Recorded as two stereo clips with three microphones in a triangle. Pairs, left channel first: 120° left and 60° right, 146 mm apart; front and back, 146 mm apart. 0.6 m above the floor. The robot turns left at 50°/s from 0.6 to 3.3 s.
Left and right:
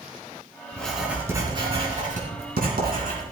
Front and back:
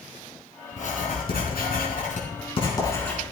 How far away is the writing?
About 4 m.